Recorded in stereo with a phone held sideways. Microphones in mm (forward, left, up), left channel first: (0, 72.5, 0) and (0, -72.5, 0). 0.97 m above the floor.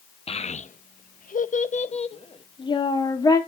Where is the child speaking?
45° left (ahead or behind), 0.9 m; by 3.4 s 25° left (ahead or behind), 1.8 m.